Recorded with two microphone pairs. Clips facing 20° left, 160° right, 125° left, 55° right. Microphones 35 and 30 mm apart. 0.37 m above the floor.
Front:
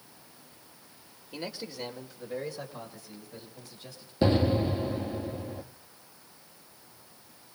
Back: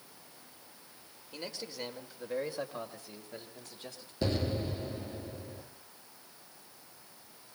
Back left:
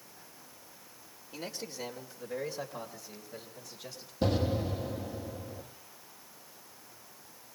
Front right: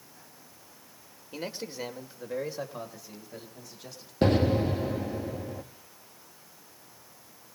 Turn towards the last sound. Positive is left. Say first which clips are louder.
# front 8 dB, front right 6 dB
turn(degrees=-40)